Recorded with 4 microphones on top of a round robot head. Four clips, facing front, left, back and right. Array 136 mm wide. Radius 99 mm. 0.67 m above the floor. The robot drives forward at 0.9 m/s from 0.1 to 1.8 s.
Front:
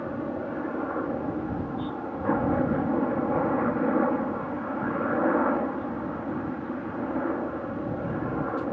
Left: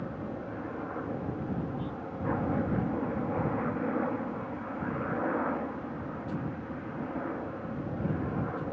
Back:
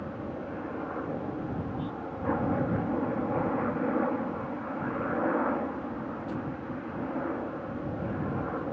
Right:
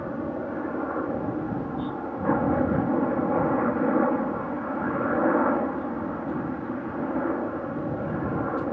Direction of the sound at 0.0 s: 55° right.